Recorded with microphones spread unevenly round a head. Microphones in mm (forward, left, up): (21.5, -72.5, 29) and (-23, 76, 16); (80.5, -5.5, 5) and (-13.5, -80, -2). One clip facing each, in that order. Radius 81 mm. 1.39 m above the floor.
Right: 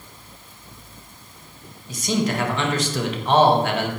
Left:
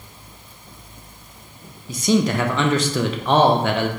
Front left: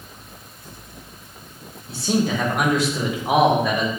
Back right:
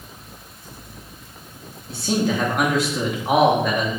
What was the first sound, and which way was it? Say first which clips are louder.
A man speaking: left 4 dB, even; 125° left.